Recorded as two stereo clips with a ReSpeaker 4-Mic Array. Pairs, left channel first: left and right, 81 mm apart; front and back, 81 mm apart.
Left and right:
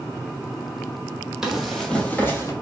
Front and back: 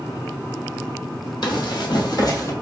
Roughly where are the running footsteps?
Ahead.